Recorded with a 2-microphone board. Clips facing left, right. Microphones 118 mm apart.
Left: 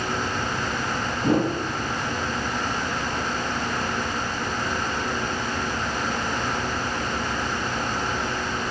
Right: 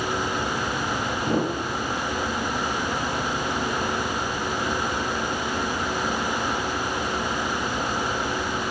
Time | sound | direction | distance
1.2 | a whoosh | 45° left (ahead or behind) | 1.5 m